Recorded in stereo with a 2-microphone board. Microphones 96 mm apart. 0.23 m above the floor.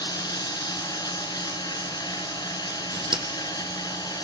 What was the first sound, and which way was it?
Running water, 45° left (ahead or behind).